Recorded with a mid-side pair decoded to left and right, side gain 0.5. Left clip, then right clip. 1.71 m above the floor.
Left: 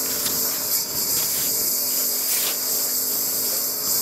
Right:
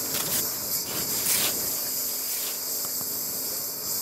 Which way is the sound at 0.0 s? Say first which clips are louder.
Left 4 dB; 35° left.